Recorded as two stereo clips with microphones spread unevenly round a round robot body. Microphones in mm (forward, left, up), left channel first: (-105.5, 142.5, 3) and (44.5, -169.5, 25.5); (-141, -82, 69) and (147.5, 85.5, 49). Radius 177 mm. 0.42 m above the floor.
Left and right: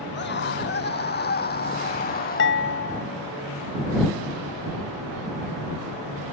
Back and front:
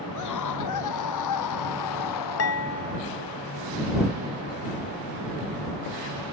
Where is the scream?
175° left; by 2.6 s straight behind.